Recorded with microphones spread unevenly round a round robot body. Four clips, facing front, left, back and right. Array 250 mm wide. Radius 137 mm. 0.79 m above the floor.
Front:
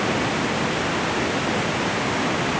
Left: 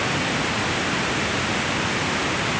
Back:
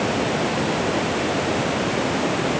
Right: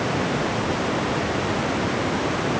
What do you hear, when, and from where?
Only background noise.